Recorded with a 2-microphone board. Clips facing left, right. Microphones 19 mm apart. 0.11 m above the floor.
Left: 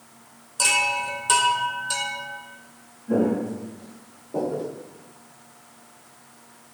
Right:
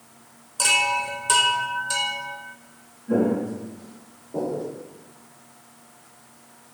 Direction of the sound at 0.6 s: 5° left (ahead or behind).